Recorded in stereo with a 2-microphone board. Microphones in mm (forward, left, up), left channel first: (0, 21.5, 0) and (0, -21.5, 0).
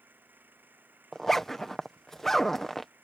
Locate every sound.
0.0 s an engine running: 50° right (ahead or behind)
1.1 s a zipper: 10° left (ahead or behind)